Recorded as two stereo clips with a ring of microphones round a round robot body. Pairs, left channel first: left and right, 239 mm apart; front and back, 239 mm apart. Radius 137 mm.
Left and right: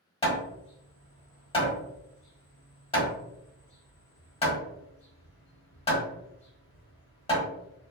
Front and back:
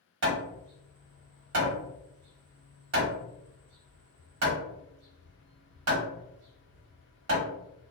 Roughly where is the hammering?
Behind.